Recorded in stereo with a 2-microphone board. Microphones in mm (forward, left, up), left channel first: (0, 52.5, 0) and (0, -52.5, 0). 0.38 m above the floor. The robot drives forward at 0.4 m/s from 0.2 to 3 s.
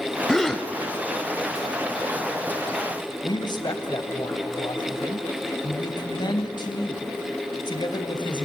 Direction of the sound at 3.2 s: 40° left (ahead or behind).